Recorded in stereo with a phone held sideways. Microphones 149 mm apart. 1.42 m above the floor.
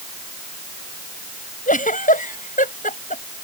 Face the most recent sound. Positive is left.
turn(degrees=60)  # may be behind; listen again after turning